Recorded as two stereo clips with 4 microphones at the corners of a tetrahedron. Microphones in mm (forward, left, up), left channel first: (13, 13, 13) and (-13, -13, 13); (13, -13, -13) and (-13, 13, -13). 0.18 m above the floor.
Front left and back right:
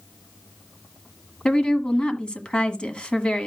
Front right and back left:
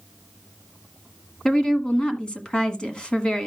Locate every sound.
1.4 s a woman speaking: 5° left, 1.5 m